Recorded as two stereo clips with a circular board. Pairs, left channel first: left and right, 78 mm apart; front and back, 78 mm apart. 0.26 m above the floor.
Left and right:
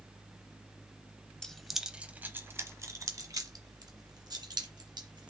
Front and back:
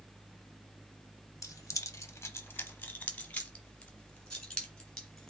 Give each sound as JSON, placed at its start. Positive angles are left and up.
{"t": 1.4, "sound": "keys jangling", "azimuth_deg": 10, "distance_m": 0.8}